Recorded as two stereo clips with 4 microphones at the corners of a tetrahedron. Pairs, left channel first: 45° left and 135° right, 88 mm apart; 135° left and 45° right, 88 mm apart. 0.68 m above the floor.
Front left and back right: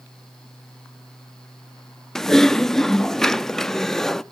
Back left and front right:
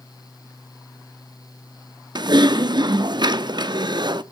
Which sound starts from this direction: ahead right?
Typing on a keyboard, at 2.1 s.